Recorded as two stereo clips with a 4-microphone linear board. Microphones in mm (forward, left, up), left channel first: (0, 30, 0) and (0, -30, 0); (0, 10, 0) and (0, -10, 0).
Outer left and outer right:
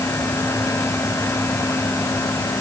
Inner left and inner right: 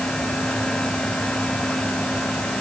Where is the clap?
I don't hear a clap.